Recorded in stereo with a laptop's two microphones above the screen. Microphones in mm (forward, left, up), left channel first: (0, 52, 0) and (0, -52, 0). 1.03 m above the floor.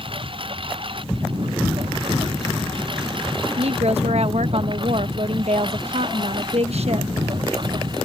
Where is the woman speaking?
70° right (ahead or behind).